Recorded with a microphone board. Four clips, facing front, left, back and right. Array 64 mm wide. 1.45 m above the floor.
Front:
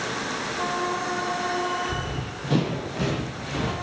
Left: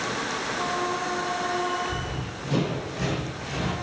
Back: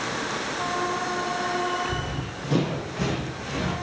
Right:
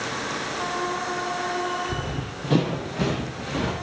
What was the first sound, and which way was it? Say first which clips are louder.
Running footsteps: right 2 dB, even; 70° right.